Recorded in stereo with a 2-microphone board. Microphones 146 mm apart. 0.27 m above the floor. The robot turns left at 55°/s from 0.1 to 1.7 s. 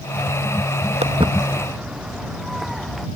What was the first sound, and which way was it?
Footsteps, 50° right (ahead or behind).